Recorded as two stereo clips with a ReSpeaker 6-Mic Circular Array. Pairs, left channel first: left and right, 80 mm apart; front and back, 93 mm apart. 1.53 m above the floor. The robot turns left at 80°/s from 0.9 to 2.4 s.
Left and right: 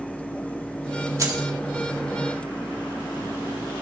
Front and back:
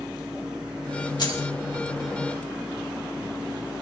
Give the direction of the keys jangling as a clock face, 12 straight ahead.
1 o'clock.